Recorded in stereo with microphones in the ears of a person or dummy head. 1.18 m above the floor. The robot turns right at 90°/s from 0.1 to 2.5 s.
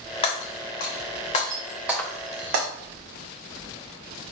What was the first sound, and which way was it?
Breaking glass, 35° left (ahead or behind).